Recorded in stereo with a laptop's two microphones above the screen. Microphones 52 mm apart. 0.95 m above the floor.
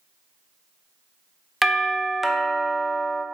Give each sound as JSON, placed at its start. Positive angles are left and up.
{"t": 1.6, "sound": "a doorbell", "side_deg": 0, "distance_m": 0.6}